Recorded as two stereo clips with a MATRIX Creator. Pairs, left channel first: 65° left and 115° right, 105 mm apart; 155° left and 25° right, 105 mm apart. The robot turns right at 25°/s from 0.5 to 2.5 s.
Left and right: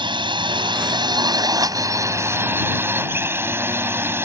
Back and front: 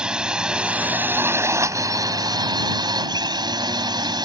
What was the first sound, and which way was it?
A drone, 100° right.